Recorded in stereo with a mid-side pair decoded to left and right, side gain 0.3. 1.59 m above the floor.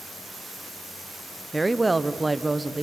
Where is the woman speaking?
20° right, 0.9 m.